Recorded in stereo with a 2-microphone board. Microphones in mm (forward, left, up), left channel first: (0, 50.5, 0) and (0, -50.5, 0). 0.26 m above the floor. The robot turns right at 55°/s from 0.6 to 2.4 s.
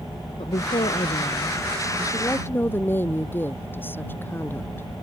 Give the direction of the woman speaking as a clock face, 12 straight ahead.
10 o'clock.